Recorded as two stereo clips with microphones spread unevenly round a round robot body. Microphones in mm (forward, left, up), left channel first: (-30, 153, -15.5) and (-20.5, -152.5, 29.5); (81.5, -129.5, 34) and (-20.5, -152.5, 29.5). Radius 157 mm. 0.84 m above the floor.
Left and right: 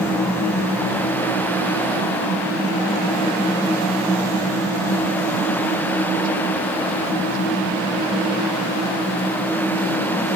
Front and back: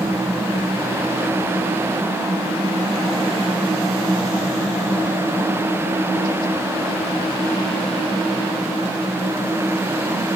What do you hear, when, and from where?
Only background noise.